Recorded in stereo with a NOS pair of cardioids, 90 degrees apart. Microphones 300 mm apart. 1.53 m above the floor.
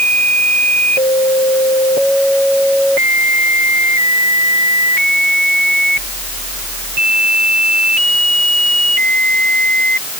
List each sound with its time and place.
Only background noise.